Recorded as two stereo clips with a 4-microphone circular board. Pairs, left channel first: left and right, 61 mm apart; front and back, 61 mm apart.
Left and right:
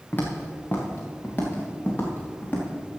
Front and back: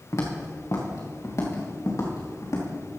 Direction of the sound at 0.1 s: 30° left.